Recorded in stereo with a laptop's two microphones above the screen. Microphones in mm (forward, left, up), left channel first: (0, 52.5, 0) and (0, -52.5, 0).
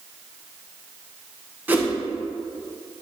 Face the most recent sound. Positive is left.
turn(degrees=-15)  # may be behind; listen again after turning